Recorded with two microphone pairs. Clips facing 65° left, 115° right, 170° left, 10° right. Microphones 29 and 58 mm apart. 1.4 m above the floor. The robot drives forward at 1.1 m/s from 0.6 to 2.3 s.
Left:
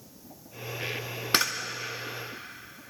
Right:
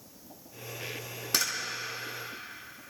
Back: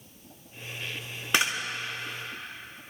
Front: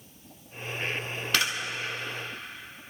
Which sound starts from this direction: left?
A camera shutter, at 1.3 s.